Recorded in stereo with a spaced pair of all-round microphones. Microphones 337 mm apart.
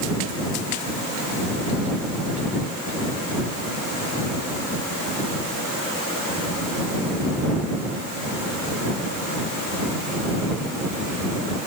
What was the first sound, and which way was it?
Only background noise.